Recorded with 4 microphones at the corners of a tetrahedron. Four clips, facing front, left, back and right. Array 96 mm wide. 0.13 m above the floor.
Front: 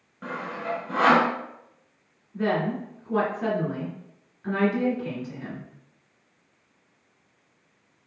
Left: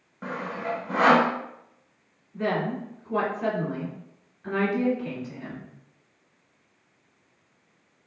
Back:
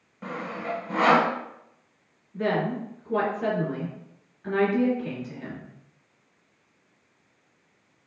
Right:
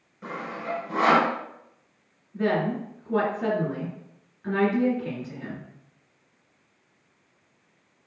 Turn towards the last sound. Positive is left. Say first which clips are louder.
# right 2 dB, even
turn(degrees=-30)